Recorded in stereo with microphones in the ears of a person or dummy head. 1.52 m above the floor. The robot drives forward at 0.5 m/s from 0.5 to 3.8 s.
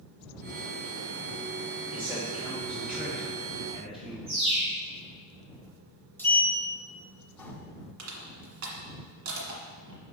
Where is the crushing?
70° right (ahead or behind), 1.8 m.